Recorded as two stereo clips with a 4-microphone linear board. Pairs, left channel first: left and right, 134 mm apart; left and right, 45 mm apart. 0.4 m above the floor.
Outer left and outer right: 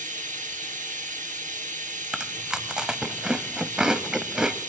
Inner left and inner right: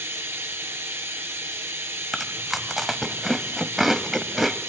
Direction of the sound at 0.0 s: 70° right (ahead or behind).